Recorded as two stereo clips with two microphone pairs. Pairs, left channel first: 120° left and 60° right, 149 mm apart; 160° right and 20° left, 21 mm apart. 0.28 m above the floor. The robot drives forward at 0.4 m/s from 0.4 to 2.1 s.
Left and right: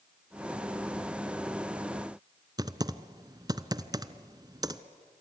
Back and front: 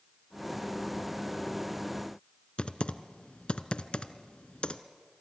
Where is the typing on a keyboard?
130° right, 0.8 m.